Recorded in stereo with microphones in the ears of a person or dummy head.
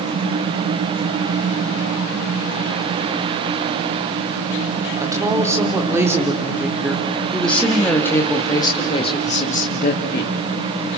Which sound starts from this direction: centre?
A woman speaking, at 5.0 s.